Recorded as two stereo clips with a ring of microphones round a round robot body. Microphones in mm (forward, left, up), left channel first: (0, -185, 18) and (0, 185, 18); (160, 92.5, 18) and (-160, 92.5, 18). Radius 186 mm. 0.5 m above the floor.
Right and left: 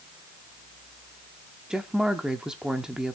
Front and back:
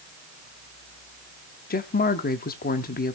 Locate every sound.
1.7 s a woman speaking: 5° left, 0.9 m